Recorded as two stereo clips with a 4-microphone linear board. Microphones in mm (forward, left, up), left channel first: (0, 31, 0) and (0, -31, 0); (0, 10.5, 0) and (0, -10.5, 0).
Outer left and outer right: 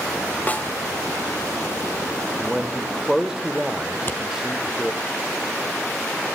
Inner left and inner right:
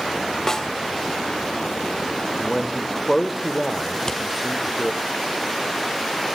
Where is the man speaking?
10° right (ahead or behind), 1.7 m.